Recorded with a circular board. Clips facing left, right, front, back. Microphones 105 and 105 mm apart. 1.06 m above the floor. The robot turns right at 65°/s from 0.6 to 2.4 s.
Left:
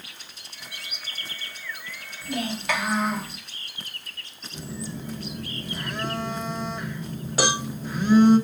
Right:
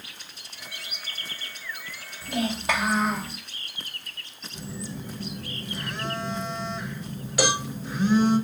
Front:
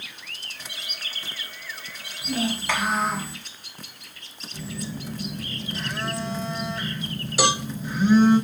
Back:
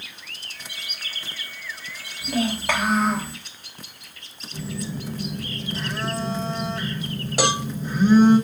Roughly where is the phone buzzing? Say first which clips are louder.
Left 2 dB, back 3 dB; behind left.